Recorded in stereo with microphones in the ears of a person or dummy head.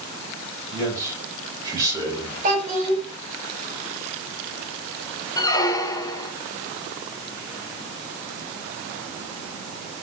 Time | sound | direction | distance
0.7 | a man speaking | 20° right (ahead or behind) | 7 m
2.4 | a child speaking | 40° right (ahead or behind) | 8 m
5.4 | a squeak | 20° left (ahead or behind) | 0.9 m